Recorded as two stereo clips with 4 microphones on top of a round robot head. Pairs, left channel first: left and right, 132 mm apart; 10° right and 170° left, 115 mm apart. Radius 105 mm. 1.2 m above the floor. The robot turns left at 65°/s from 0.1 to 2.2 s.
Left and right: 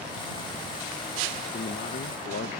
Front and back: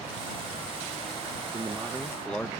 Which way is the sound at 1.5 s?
115° left.